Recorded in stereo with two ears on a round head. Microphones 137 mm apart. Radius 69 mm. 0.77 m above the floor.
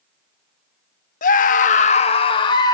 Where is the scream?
55° left (ahead or behind), 0.8 m; by 2.8 s 25° left (ahead or behind), 1.1 m.